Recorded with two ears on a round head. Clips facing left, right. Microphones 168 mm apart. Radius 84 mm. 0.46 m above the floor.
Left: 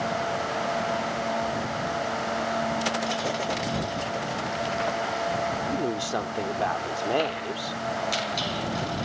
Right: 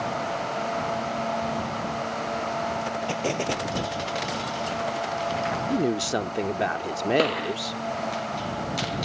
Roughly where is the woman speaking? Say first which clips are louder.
Right 3 dB; right.